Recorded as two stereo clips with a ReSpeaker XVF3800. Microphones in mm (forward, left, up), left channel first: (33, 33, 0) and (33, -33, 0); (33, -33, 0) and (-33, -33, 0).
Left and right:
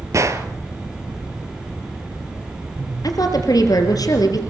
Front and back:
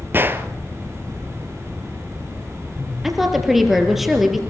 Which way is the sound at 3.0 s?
95° left.